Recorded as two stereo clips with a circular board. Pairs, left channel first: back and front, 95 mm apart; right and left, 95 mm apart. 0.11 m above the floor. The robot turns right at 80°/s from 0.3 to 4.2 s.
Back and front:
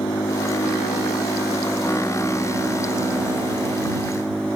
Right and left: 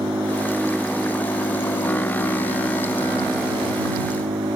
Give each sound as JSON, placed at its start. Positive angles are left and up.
{"t": 0.0, "sound": "an engine running", "azimuth_deg": 140}